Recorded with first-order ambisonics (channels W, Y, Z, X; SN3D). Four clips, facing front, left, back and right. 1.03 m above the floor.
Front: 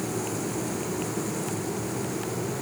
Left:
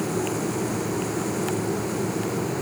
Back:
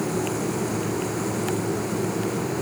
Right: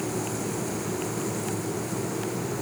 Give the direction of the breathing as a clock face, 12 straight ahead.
No breathing in this recording.